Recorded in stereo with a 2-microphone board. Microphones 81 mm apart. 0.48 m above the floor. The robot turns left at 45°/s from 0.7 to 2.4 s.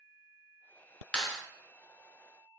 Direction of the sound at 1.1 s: 10° left (ahead or behind).